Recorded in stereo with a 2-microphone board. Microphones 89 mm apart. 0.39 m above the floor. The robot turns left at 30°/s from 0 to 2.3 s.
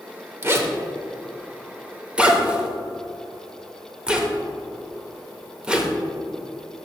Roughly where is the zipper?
Right.